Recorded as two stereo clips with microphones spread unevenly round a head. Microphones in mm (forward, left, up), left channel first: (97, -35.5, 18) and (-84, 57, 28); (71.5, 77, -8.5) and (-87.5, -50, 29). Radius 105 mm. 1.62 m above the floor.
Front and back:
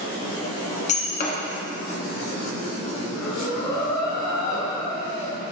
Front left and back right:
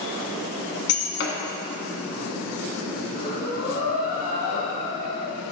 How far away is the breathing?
About 1.5 m.